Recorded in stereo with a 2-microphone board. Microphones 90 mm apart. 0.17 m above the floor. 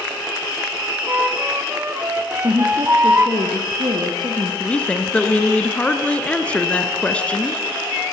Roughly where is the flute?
Right.